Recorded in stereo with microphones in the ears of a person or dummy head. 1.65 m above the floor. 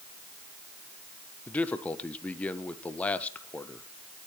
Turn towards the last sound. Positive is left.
turn(degrees=10)  # may be behind; listen again after turning